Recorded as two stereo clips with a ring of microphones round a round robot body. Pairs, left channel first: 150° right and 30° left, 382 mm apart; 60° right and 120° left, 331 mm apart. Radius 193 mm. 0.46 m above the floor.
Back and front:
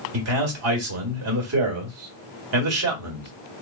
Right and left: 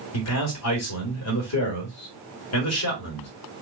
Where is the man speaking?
20° right, 1.7 m.